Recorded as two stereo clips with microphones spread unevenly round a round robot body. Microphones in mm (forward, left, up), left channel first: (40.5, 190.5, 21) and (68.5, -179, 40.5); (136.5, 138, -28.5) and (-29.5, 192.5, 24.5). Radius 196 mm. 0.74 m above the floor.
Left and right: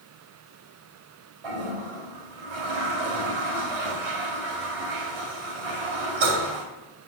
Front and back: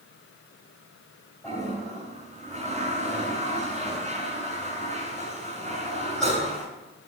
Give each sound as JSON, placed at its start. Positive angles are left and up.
{"t": 1.4, "sound": "a toilet flushing", "azimuth_deg": -100, "distance_m": 2.5}